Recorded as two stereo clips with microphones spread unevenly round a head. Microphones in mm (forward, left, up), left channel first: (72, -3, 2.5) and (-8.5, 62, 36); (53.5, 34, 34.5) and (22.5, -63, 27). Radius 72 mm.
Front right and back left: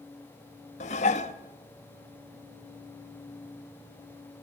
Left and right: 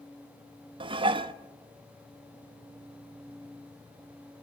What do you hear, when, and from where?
0.8 s dishes clattering: 70° right, 0.7 m